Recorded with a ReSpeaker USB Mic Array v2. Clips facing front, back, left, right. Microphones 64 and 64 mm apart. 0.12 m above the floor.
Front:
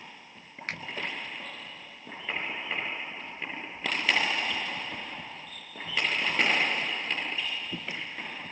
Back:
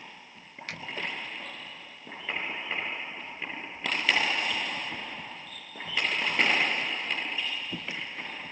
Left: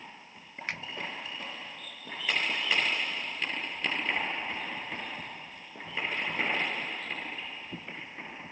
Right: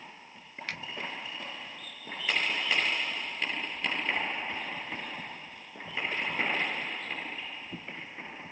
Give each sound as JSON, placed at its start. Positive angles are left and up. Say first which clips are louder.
{"t": 0.7, "sound": "a finger snap", "louder": "front 4 dB, left 2 dB", "azimuth_deg": 30, "distance_m": 1.2}